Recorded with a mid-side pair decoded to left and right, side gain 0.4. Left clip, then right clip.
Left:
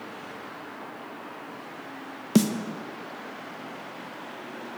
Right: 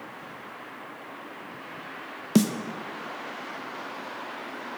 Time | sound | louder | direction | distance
2.4 | a snare drum | even | straight ahead | 0.8 m